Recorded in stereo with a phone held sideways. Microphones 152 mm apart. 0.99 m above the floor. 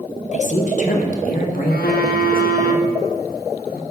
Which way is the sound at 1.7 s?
85° left.